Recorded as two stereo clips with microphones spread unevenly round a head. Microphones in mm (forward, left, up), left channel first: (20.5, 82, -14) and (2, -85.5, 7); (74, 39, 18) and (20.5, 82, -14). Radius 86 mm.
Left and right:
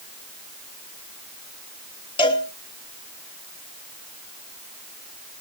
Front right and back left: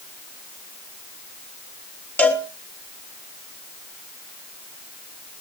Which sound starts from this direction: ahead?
A cowbell, at 2.2 s.